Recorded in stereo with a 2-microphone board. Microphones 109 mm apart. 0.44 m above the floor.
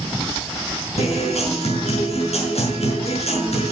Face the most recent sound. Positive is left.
turn(degrees=80)